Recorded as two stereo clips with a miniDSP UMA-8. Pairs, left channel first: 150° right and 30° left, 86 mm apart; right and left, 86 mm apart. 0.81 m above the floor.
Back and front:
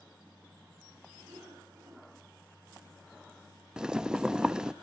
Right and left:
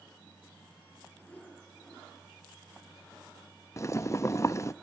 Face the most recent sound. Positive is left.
turn(degrees=-50)